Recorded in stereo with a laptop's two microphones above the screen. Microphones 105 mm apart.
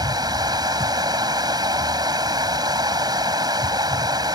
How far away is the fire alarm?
No fire alarm in this recording.